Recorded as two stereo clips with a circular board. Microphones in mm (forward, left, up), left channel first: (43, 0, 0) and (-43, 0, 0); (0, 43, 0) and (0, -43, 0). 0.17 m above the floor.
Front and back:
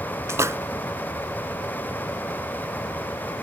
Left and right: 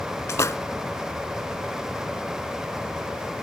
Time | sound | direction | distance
0.3 | a splash | 135° left | ?